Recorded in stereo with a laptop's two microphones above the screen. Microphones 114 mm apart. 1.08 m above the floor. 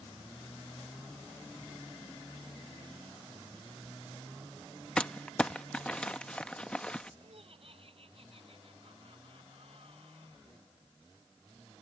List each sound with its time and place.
5.0 s crumpling: 10° left (ahead or behind)
7.2 s laughter: 55° right (ahead or behind)